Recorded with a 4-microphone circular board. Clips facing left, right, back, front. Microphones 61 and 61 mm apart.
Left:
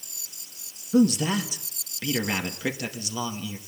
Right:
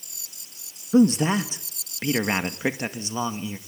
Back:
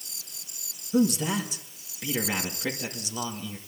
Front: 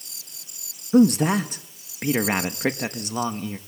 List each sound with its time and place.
0.9 s a man speaking: 35° right, 1.7 m